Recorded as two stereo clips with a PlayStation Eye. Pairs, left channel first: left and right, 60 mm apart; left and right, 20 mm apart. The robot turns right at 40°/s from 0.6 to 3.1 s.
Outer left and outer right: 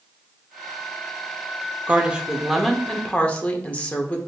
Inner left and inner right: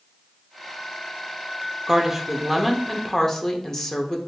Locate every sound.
1.9 s a woman speaking: 25° right, 0.7 m; by 4.2 s 25° left, 0.7 m